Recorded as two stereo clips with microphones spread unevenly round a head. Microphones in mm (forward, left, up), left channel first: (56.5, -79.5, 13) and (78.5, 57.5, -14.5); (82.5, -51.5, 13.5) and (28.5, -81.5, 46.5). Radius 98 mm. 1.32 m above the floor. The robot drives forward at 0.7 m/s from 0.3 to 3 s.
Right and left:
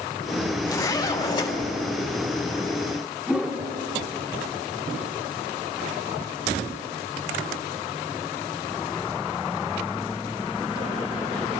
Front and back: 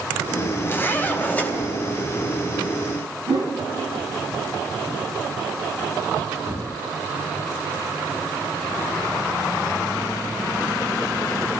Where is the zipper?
45° right, 2.5 m; by 1.5 s 60° right, 2.0 m.